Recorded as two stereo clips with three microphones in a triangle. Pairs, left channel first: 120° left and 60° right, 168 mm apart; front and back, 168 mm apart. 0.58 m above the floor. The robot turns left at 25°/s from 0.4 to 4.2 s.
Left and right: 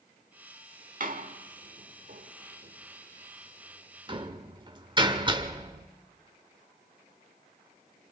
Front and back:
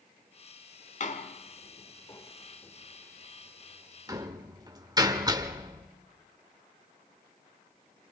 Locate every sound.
1.0 s a door slam: 35° right, 1.3 m; by 5.9 s 115° right, 1.3 m